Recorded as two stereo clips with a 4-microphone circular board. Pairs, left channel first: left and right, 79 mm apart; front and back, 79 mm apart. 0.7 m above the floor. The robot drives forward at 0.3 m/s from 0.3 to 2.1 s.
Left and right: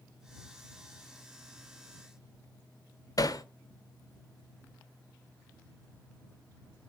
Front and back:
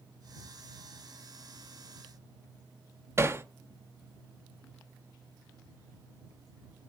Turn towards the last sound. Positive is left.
turn(degrees=120)